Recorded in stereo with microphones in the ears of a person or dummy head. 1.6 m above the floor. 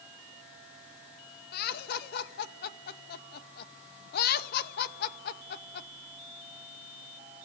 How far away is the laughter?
About 1.8 m.